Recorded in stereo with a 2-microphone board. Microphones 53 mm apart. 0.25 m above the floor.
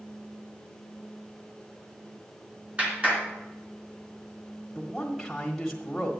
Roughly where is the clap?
Right.